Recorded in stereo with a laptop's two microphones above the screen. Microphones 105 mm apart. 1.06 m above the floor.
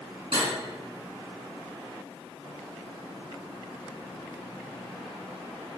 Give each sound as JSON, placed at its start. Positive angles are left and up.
{"t": 0.3, "sound": "cutlery clinking", "side_deg": -60, "distance_m": 1.3}